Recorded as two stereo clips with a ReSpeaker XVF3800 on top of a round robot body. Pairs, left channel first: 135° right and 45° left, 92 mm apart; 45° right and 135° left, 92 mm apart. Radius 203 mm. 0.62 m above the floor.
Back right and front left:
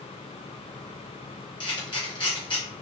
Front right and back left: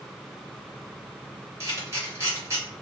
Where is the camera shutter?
165° right, 1.5 m.